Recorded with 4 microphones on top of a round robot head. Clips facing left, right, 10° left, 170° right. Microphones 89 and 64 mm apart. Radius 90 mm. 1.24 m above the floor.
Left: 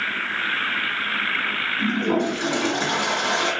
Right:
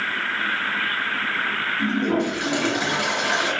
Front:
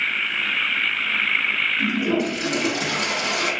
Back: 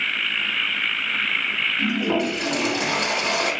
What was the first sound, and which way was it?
A toilet flushing, 150° left.